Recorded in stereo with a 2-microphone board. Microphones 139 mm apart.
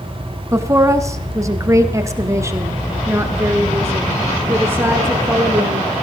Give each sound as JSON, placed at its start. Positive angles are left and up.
{"t": 0.5, "sound": "a woman speaking", "side_deg": -20, "distance_m": 1.1}